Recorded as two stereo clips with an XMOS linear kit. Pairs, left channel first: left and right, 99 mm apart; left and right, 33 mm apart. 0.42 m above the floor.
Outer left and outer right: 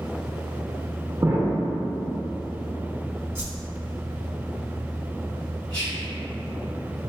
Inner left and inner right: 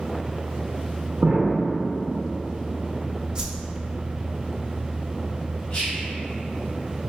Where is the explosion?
30° right (ahead or behind), 0.6 m.